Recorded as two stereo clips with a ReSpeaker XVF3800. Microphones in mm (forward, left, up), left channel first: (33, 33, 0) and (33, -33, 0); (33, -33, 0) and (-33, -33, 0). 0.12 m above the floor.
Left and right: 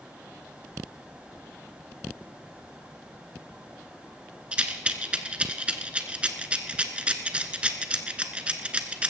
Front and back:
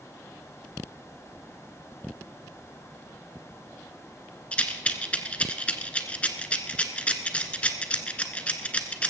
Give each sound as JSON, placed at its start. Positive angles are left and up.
{"t": 4.5, "sound": "a rattle", "azimuth_deg": -40, "distance_m": 1.1}